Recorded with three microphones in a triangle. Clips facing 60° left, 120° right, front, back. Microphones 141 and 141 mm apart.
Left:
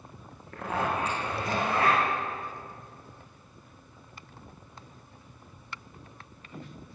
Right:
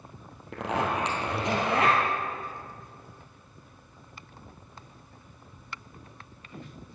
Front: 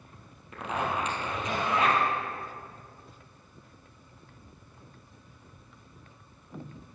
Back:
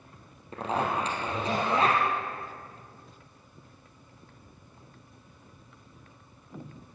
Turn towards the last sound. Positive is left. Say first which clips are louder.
# right 2 dB, back 2 dB
turn(degrees=-125)